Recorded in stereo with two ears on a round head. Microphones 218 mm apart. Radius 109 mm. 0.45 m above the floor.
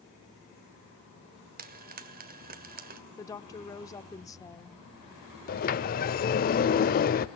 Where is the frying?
40° right (ahead or behind), 1.7 m.